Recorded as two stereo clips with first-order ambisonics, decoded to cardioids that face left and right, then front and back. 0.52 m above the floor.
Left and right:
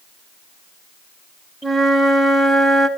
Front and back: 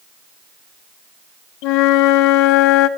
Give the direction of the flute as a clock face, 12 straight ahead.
12 o'clock.